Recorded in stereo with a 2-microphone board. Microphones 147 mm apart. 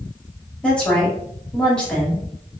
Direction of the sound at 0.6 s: 5° left (ahead or behind).